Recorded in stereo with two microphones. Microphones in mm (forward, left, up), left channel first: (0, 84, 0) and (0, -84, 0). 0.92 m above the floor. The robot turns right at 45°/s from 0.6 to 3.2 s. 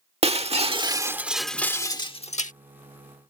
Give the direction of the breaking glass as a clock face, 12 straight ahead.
1 o'clock.